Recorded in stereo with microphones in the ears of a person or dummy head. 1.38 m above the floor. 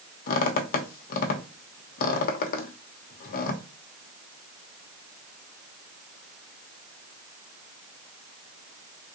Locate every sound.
0.3 s a squeak: 45° left (ahead or behind), 0.6 m